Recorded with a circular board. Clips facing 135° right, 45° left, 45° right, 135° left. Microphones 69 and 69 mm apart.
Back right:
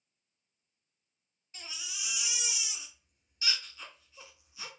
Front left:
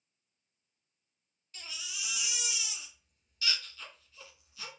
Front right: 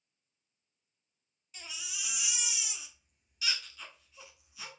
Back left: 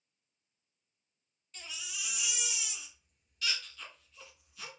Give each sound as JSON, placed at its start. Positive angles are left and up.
{"t": 1.5, "sound": "a baby crying", "azimuth_deg": -115, "distance_m": 0.8}